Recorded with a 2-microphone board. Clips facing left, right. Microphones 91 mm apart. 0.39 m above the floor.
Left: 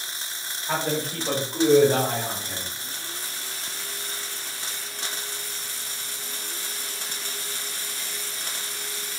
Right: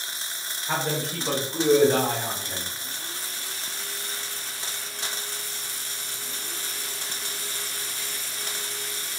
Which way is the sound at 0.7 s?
10° right (ahead or behind).